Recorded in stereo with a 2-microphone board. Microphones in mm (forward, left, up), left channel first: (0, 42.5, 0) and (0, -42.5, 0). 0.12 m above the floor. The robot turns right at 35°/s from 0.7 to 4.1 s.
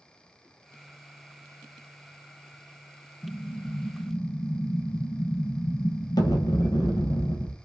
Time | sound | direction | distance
3.2 | an explosion | 35° left | 0.8 m